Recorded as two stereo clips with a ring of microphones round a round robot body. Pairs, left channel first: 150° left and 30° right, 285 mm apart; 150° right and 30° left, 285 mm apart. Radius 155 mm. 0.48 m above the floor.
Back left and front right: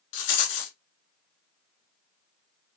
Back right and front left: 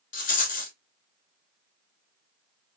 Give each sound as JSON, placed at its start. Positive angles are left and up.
{"t": 0.1, "sound": "a rattle", "azimuth_deg": 145, "distance_m": 1.8}